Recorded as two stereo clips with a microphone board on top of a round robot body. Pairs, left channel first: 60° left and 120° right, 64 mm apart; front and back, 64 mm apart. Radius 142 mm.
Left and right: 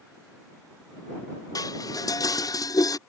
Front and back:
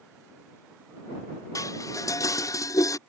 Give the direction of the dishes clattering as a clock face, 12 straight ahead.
11 o'clock.